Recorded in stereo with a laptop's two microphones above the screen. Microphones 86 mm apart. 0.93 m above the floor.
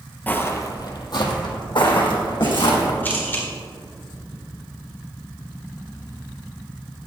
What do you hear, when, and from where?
0.3 s footsteps: 20° left (ahead or behind), 1.2 m; by 2.9 s 80° left, 4 m
3.0 s a camera shutter: 20° left (ahead or behind), 4 m